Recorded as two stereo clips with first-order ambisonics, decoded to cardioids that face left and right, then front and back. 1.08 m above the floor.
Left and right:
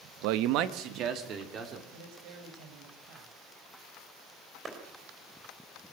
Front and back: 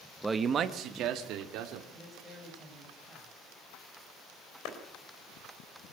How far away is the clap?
About 3.5 m.